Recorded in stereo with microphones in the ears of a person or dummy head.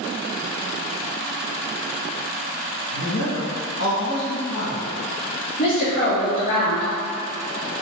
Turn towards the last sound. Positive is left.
turn(degrees=40)  # may be behind; listen again after turning